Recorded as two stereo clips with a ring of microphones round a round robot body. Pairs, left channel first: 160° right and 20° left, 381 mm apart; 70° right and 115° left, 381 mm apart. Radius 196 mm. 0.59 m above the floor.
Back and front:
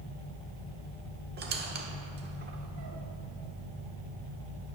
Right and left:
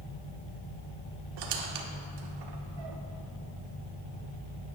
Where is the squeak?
85° left, 0.9 m.